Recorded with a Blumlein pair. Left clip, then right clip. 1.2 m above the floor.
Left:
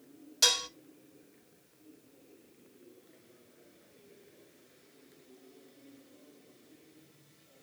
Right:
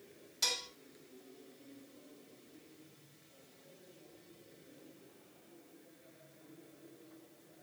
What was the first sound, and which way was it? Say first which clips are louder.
Dishes clattering: left 9 dB; 60° left.